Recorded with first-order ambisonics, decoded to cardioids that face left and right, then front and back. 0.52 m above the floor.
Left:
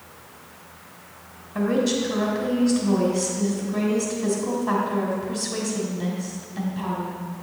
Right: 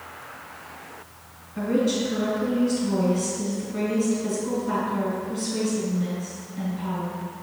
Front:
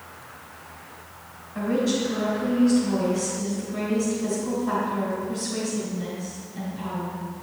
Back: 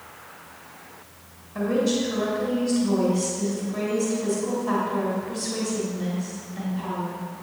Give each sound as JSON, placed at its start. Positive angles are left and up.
{"t": 1.6, "sound": "a woman speaking", "azimuth_deg": 105, "distance_m": 2.5}